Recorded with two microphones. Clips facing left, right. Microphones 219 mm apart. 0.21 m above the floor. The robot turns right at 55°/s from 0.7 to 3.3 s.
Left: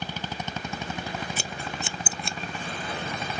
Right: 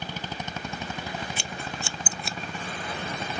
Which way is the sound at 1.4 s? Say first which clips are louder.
Left 1 dB; 45° left (ahead or behind).